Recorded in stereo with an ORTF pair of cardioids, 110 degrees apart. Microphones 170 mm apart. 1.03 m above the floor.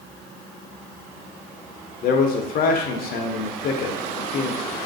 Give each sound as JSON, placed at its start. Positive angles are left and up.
{"t": 2.0, "sound": "a man speaking", "azimuth_deg": 65, "distance_m": 0.6}